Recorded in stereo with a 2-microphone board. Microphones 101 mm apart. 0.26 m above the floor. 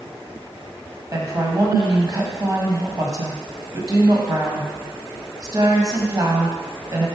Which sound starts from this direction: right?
A woman speaking, at 1.1 s.